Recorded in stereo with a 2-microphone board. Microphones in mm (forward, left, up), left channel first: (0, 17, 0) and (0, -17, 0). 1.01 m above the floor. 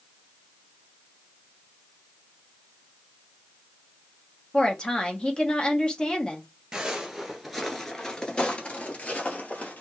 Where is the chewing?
I don't hear chewing.